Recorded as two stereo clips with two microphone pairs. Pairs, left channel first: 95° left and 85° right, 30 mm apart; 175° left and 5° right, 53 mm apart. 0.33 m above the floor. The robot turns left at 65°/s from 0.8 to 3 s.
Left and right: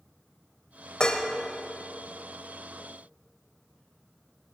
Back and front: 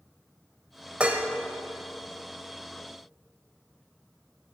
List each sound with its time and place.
1.0 s dishes clattering: 55° left, 0.8 m; by 1.3 s 35° left, 0.8 m